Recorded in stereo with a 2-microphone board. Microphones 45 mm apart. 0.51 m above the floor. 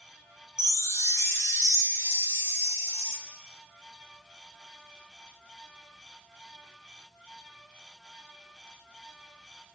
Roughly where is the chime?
Left.